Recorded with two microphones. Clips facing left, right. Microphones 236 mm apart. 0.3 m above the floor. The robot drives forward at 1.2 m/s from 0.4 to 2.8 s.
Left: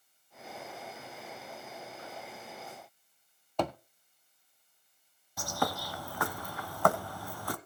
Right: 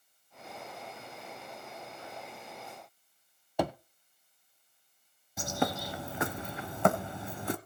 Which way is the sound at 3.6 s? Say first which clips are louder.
Right 1 dB; 10° right (ahead or behind).